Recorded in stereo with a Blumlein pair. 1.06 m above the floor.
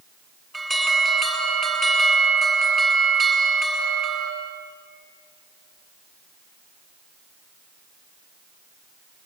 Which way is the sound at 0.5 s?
10° right.